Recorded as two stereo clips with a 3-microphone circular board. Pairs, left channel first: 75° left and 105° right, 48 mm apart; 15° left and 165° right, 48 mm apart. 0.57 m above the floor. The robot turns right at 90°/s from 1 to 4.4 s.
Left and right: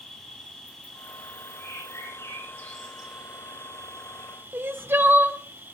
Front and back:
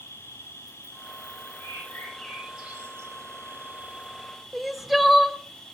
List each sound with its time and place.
0.0 s an insect: 20° right, 5 m; by 5.8 s 70° right, 5 m
1.6 s a bird: 20° left, 9.5 m; by 3.1 s 160° left, 9.5 m
4.5 s crying: 80° right, 1.2 m